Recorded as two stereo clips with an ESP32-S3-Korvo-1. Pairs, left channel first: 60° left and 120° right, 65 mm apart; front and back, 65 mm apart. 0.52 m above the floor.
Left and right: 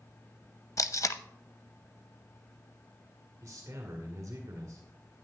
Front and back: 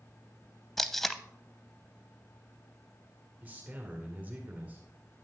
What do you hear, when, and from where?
0.8 s tape being pulled: 85° left, 0.5 m
3.4 s a man speaking: 120° right, 1.7 m